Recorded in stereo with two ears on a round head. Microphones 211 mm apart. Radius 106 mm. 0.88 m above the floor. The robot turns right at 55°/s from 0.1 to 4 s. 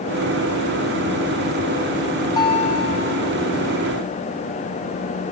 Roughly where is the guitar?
Ahead.